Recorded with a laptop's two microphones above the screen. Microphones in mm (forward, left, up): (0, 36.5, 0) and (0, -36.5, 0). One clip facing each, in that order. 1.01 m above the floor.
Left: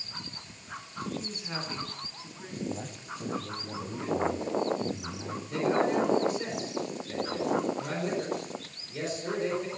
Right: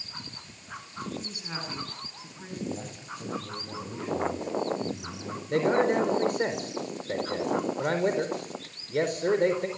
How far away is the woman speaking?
About 8.5 m.